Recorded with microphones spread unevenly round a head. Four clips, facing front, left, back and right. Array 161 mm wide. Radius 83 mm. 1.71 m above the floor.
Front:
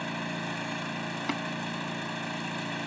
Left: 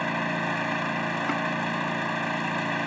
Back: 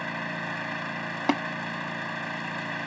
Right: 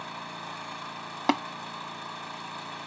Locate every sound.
0.0 s an engine running: 85° left
1.3 s tapping: 150° right